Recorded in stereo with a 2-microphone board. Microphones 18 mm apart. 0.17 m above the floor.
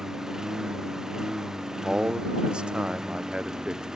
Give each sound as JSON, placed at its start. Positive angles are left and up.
{"t": 0.0, "sound": "a lawn mower", "side_deg": -30}
{"t": 1.8, "sound": "a man speaking", "side_deg": -60}